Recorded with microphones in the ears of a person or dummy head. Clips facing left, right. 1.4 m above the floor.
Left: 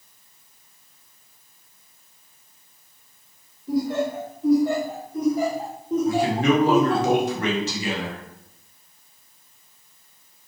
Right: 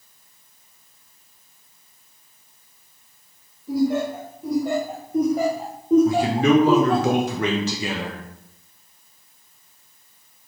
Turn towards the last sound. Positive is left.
turn(degrees=-55)  # may be behind; listen again after turning